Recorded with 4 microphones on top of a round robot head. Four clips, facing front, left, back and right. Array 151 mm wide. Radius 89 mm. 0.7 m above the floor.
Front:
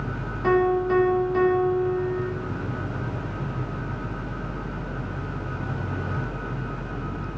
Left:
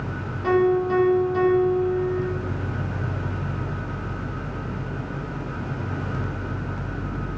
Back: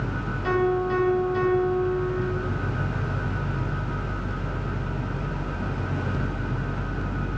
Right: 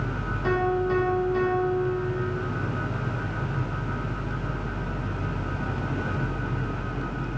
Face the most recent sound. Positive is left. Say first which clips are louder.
# left 5 dB, front 3 dB
turn(degrees=10)